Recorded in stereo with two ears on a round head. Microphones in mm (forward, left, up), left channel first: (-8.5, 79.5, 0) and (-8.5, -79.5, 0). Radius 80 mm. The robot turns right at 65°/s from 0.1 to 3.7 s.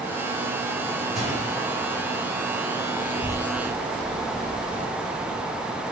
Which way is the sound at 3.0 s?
30° left (ahead or behind).